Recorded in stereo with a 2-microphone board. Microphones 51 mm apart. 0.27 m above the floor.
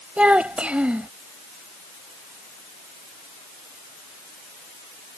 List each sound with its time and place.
0.2 s a child speaking: 25° right (ahead or behind)